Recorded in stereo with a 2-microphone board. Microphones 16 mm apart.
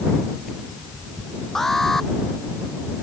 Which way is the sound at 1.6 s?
20° left (ahead or behind).